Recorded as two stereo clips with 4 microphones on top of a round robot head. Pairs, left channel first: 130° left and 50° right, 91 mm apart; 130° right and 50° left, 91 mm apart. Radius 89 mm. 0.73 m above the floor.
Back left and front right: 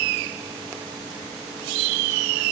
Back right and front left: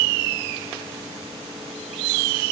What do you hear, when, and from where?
Only background noise.